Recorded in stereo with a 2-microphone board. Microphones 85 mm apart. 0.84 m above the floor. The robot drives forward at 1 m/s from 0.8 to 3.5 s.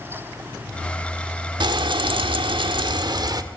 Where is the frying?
65° right (ahead or behind), 1.6 m; by 3.4 s 50° right (ahead or behind), 1.8 m.